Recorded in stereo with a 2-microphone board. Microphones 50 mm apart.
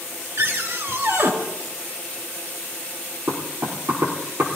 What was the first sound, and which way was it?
A cupboard door, 60° right (ahead or behind).